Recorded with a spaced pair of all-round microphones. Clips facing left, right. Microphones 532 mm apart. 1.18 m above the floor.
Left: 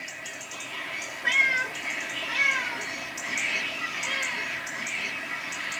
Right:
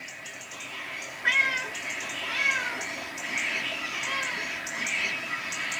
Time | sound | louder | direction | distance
1.2 | a cat meowing | left 1 dB | centre (ahead or behind) | 1.5 m